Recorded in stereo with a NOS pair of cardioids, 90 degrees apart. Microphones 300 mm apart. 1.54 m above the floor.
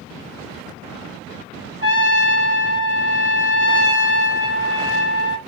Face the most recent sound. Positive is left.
turn(degrees=-45)